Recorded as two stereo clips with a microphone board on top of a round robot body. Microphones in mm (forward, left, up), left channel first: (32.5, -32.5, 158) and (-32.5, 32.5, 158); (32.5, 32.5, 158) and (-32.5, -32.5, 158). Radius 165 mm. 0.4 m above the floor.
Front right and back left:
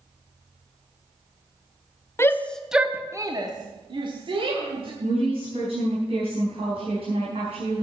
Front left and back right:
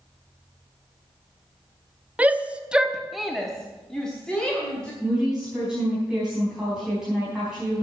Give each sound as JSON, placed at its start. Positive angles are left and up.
{"t": 2.2, "sound": "a shout", "azimuth_deg": -75, "distance_m": 1.1}
{"t": 5.0, "sound": "a woman speaking", "azimuth_deg": 140, "distance_m": 4.5}